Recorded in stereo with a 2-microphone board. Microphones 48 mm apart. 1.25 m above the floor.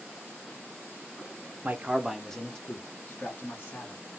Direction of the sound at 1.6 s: 35° right (ahead or behind).